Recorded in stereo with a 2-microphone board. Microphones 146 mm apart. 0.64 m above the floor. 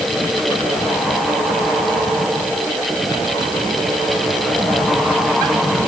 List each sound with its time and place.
Only background noise.